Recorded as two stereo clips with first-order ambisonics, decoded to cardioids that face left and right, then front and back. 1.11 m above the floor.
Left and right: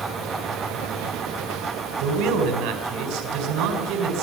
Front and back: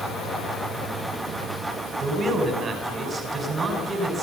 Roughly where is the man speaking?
Right.